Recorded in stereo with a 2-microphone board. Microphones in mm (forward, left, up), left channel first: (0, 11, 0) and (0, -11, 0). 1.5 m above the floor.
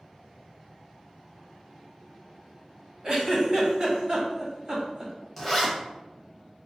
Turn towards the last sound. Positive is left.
turn(degrees=0)  # may be behind; listen again after turning